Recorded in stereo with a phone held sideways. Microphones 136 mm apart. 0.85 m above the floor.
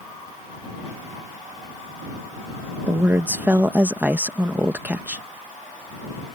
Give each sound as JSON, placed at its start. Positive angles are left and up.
{"t": 2.9, "sound": "a woman speaking", "side_deg": -15}